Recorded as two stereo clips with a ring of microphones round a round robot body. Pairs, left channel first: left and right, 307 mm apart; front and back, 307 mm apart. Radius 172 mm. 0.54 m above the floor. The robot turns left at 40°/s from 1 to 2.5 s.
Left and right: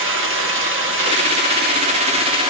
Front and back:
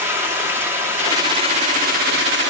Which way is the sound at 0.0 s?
100° right.